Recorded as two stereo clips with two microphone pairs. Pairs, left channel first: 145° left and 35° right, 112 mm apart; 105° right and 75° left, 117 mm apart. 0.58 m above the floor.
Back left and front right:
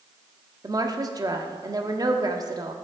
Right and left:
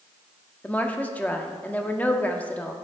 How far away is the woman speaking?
About 0.7 m.